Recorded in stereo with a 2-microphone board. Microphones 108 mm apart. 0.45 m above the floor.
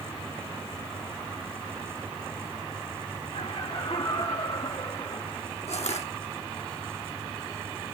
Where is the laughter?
70° left (ahead or behind), 2 m; by 5.5 s 50° left (ahead or behind), 3.5 m.